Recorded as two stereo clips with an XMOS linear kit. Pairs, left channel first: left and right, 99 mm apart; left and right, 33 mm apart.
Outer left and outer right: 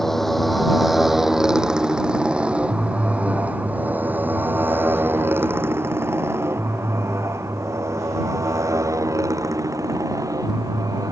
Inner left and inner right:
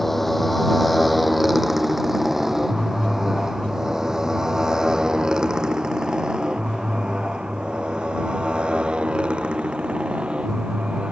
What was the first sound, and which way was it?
A motorcycle, 5° left (ahead or behind).